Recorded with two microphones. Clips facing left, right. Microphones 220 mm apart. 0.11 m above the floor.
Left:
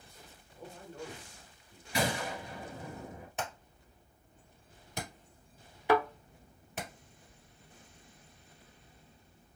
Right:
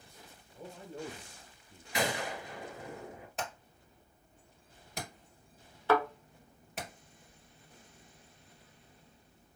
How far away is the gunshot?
About 1.8 m.